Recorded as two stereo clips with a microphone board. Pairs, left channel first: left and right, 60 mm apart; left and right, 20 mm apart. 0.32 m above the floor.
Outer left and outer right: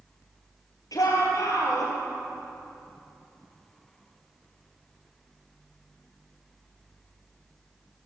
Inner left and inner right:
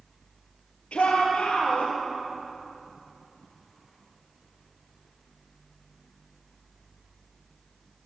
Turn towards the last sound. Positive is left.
turn(degrees=70)  # may be behind; listen again after turning